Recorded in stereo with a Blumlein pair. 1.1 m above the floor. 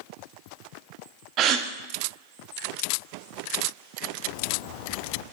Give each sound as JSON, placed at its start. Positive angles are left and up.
{"t": 1.4, "sound": "a gasp", "azimuth_deg": -35, "distance_m": 1.0}
{"t": 4.2, "sound": "a bird", "azimuth_deg": 45, "distance_m": 0.7}